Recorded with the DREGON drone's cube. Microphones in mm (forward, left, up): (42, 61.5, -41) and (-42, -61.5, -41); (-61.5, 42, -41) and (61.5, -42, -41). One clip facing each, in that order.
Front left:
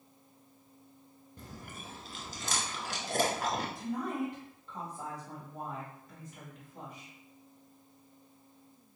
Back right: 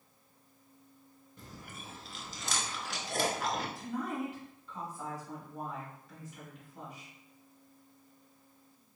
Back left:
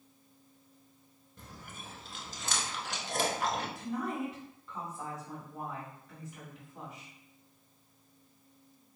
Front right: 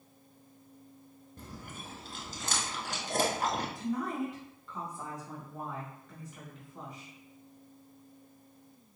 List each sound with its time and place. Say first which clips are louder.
1.4 s chewing: front left 2 dB, front right 3 dB; 10° left, 0.7 m
3.8 s a woman speaking: front left 2 dB, front right 2 dB; 65° left, 1.6 m